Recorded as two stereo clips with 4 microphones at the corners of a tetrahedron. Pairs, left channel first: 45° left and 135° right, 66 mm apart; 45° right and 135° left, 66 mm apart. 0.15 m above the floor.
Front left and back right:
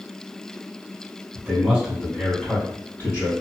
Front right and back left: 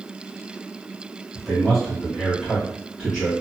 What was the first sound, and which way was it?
A man speaking, 140° right.